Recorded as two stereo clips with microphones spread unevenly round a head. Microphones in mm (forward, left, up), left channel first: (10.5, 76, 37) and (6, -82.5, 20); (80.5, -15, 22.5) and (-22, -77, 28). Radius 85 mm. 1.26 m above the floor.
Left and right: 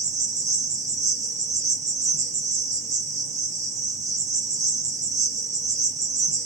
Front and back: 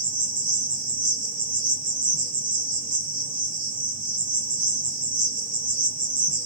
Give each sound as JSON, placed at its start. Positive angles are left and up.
{"t": 0.0, "sound": "an insect", "azimuth_deg": -135, "distance_m": 0.7}